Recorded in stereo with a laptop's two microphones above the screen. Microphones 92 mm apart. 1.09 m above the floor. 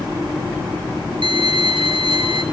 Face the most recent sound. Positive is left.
turn(degrees=-65)  # may be behind; listen again after turning